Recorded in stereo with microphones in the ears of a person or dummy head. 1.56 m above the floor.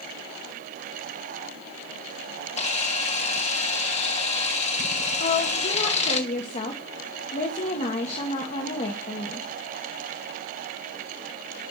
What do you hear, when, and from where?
2.6 s a camera shutter: 35° left (ahead or behind), 1.6 m
5.2 s a woman speaking: 40° left (ahead or behind), 1.4 m